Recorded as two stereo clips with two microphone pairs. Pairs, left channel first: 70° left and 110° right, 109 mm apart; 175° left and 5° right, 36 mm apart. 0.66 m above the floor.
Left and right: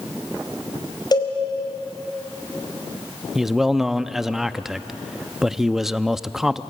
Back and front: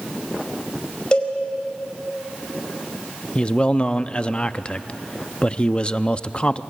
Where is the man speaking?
160° left, 0.5 m.